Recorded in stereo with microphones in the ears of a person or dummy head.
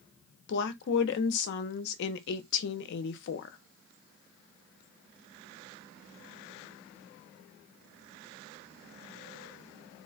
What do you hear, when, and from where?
0.5 s a woman speaking: 60° left (ahead or behind), 0.7 m